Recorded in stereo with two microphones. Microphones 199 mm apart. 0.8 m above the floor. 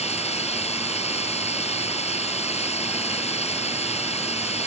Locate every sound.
0.0 s running water: 30° left (ahead or behind)